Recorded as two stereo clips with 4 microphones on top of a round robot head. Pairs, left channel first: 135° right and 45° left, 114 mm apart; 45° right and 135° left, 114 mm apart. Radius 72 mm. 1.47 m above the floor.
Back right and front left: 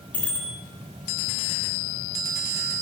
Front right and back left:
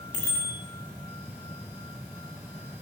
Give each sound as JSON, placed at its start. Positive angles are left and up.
{"t": 0.1, "sound": "a bicycle bell", "azimuth_deg": -60, "distance_m": 7.0}